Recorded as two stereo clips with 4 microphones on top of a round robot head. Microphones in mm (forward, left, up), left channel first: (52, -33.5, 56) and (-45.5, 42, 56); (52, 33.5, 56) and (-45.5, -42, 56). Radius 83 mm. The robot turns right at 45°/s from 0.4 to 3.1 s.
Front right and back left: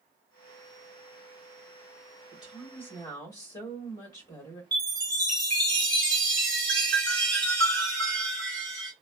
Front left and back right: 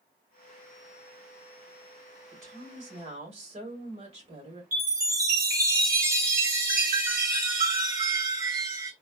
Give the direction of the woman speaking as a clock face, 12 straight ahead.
5 o'clock.